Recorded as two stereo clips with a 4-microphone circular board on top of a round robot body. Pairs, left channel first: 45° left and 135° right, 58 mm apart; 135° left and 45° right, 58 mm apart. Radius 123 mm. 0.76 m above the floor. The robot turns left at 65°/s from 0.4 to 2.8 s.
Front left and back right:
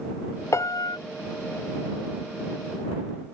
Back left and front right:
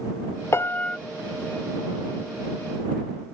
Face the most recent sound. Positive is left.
turn(degrees=-65)